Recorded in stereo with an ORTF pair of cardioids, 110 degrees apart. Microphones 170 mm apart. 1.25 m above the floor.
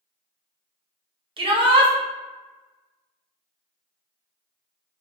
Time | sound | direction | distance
1.4 | a shout | 30° right | 1.0 m